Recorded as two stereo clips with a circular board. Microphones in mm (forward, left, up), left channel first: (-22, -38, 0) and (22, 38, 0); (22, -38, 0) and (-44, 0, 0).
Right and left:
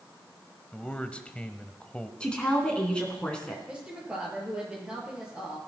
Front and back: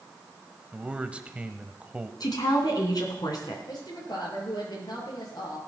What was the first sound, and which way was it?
A man speaking, 170° right.